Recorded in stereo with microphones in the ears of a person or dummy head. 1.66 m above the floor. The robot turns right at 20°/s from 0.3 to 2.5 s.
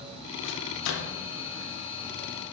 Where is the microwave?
70° left (ahead or behind), 1.5 m; by 1.2 s 85° left, 1.5 m.